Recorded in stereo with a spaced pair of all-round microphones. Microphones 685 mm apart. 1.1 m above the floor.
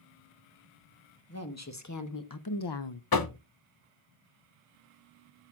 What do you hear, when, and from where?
1.3 s a woman speaking: 20° left (ahead or behind), 1.3 m; by 3.0 s 45° left (ahead or behind), 0.5 m
3.1 s knocking: 35° left (ahead or behind), 0.6 m